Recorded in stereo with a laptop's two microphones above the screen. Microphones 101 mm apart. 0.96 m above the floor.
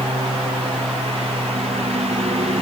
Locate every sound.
0.0 s a lawn mower: 90° right; by 2.6 s 85° right